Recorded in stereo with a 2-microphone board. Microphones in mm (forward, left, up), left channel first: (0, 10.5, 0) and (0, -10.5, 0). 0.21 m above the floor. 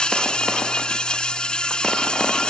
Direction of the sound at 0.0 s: 45° left (ahead or behind).